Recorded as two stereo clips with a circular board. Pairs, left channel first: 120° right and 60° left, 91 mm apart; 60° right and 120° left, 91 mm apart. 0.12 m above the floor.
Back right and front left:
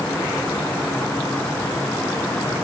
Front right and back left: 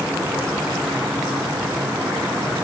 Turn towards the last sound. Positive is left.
No sound to turn to.